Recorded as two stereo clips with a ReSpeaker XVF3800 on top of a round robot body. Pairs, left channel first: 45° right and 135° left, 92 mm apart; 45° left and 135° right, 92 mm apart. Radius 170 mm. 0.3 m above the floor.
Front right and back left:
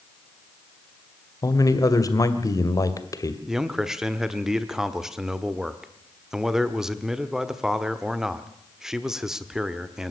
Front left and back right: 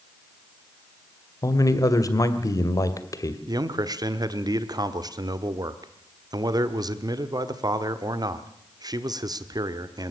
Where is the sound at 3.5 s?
145° right, 1.7 m.